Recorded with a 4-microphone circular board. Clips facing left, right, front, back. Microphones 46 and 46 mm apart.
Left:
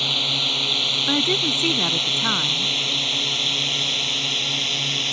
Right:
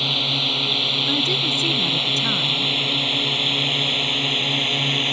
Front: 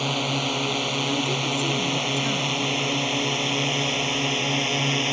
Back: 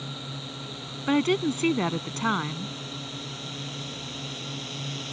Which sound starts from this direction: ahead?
A drone, at 0.0 s.